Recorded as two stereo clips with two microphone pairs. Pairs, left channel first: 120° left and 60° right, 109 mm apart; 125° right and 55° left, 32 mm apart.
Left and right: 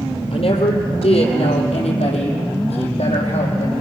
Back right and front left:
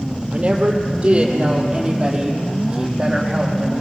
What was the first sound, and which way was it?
A woman speaking, 105° left.